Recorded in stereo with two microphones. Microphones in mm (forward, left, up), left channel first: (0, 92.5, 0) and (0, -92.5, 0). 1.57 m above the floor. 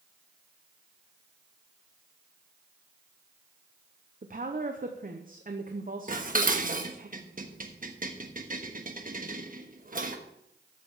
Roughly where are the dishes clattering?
Right.